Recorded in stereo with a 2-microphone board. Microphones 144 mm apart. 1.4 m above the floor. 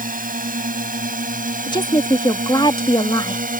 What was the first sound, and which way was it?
A drone, 70° right (ahead or behind).